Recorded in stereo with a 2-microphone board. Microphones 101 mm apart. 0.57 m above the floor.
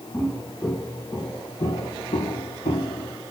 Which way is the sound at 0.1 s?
10° left (ahead or behind).